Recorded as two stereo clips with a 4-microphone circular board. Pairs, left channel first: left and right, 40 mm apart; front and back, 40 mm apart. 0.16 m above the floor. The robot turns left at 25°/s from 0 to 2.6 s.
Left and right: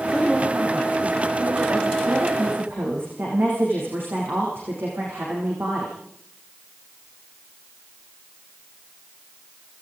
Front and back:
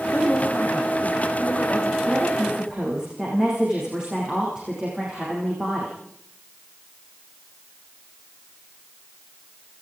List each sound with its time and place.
0.1 s a man speaking: 25° right, 9.5 m; by 2.0 s 70° right, 9.5 m
2.1 s a woman speaking: 95° right, 9.5 m; by 6.0 s 110° right, 9.5 m